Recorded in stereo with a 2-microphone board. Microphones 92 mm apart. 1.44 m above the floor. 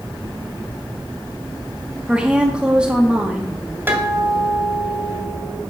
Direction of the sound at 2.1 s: 10° right (ahead or behind).